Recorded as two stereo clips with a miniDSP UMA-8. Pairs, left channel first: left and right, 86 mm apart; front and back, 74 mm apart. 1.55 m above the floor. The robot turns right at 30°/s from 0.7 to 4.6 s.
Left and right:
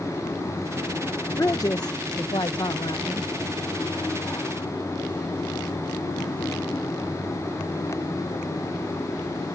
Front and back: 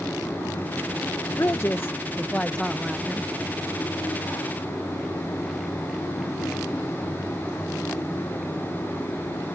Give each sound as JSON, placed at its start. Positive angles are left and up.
{"t": 1.4, "sound": "a man speaking", "azimuth_deg": 40}